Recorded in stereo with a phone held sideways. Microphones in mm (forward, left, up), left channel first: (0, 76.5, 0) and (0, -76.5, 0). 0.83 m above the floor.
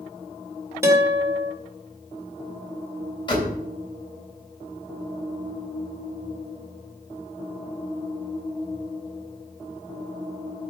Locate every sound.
0.8 s a guitar: 15° right (ahead or behind), 2.5 m
3.3 s a door slam: 30° left (ahead or behind), 3.5 m